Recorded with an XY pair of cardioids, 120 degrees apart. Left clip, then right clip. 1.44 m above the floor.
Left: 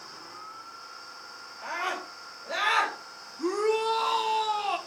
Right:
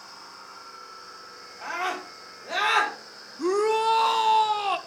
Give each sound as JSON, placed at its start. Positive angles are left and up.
{"t": 1.6, "sound": "a scream", "azimuth_deg": -45, "distance_m": 5.0}
{"t": 3.4, "sound": "a shout", "azimuth_deg": -25, "distance_m": 1.1}